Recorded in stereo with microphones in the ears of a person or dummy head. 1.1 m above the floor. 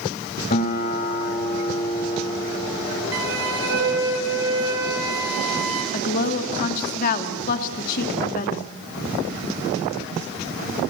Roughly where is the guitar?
Left.